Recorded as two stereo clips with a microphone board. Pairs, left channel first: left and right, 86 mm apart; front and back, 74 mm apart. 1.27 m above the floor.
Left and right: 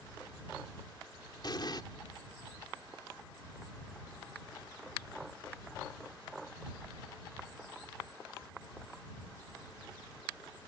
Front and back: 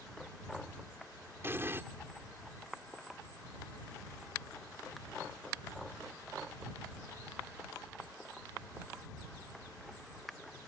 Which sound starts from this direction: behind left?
An explosion, at 1.4 s.